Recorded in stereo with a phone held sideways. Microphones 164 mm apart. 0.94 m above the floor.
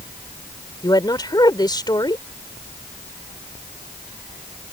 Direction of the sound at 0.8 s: 25° left (ahead or behind).